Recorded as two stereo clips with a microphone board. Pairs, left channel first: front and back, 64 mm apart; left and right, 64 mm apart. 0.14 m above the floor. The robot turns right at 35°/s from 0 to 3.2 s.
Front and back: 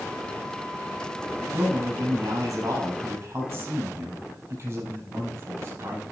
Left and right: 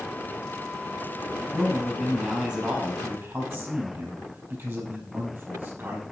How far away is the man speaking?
About 4 m.